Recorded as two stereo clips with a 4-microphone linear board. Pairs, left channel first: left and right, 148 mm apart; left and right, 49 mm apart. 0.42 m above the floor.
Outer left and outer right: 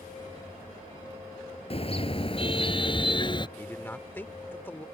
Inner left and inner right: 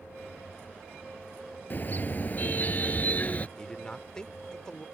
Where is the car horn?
40° left (ahead or behind); by 3.5 s 30° left (ahead or behind).